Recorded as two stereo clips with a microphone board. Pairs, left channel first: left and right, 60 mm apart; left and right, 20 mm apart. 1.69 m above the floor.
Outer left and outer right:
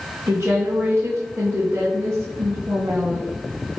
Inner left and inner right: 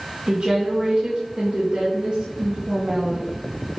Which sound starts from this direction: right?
A woman speaking, at 0.3 s.